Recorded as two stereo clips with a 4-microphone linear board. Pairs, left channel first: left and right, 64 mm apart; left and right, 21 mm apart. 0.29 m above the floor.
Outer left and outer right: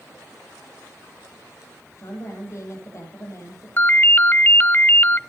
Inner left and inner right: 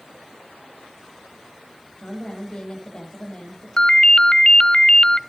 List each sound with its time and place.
2.0 s a woman speaking: 50° left (ahead or behind), 10 m
3.8 s a ringtone: 35° left (ahead or behind), 0.5 m